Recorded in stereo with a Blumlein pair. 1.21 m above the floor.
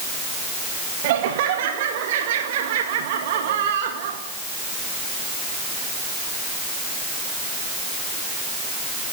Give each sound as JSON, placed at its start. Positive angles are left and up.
{"t": 1.0, "sound": "laughter", "azimuth_deg": -50, "distance_m": 2.0}